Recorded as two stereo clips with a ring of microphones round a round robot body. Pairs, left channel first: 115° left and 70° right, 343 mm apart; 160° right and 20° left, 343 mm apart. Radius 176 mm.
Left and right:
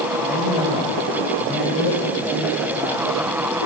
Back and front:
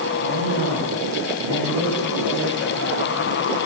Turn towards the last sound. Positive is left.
turn(degrees=15)